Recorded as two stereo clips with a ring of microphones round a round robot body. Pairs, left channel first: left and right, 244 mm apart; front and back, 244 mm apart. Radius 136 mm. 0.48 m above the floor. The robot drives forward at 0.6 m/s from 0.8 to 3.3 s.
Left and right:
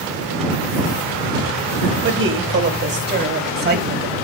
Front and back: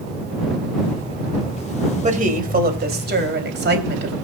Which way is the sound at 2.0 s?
120° right.